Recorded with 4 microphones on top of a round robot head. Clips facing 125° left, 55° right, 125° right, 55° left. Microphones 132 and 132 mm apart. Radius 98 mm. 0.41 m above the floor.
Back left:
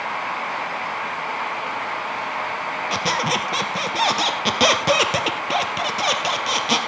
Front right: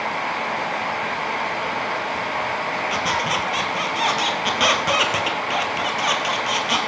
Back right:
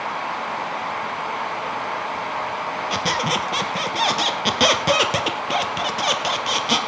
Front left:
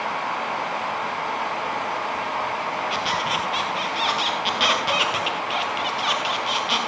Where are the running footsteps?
I don't hear running footsteps.